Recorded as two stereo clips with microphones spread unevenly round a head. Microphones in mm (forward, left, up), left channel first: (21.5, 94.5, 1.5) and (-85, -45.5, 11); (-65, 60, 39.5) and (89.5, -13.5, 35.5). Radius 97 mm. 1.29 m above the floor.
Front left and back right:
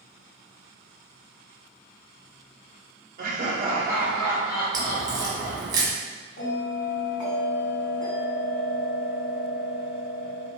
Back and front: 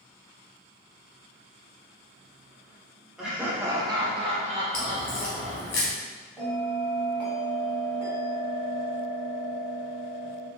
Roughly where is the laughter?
Right.